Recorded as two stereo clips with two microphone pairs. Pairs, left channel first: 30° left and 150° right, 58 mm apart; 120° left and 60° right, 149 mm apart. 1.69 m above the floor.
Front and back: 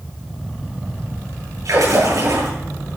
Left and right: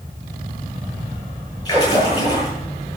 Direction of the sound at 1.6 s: 175° right.